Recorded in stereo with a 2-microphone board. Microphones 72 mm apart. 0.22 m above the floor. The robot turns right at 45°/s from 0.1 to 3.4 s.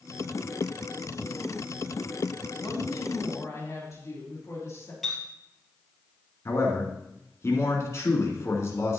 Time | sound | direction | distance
2.6 | a woman speaking | 100° left | 3.5 m
5.0 | a clink | 5° left (ahead or behind) | 3 m
6.5 | a man speaking | 40° left (ahead or behind) | 2.5 m